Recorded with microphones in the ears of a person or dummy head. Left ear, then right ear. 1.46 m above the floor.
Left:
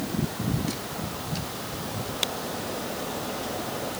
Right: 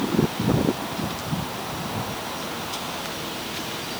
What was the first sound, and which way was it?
Only background noise.